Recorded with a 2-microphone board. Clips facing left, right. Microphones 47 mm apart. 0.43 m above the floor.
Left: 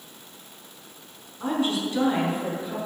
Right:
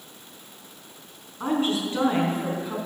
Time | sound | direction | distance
1.4 | a woman speaking | 30° right (ahead or behind) | 5 m